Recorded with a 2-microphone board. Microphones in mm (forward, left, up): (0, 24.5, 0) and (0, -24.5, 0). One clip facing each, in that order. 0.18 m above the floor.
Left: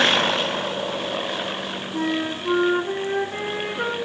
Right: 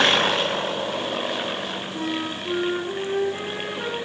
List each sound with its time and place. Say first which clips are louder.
1.9 s a flute: left 5 dB; 50° left (ahead or behind), 2.5 m